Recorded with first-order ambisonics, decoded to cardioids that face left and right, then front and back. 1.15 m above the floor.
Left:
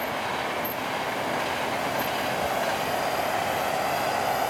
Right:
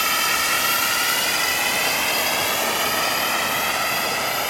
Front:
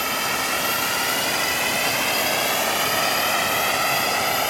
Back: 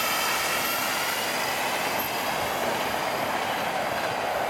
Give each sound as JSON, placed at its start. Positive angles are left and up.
{"t": 0.0, "sound": "a drone", "azimuth_deg": -85}